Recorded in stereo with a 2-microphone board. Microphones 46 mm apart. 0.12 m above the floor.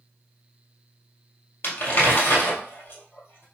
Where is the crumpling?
55° left (ahead or behind), 1.9 m.